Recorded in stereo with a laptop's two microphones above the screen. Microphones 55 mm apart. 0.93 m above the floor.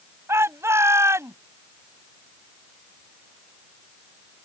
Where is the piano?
I don't hear a piano.